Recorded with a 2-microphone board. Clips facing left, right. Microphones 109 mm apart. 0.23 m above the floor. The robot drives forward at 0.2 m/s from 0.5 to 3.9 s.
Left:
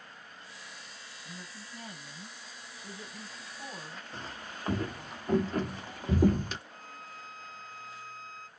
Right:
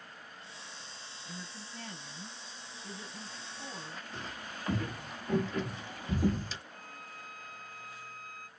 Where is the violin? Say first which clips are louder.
Left 1 dB; 25° left (ahead or behind), 1.3 m.